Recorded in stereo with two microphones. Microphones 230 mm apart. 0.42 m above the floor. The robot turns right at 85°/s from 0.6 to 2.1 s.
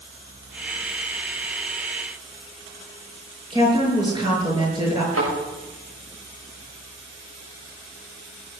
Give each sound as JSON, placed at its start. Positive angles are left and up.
{"t": 3.5, "sound": "a woman speaking", "side_deg": -20, "distance_m": 6.5}
{"t": 5.1, "sound": "a thud", "side_deg": -80, "distance_m": 8.5}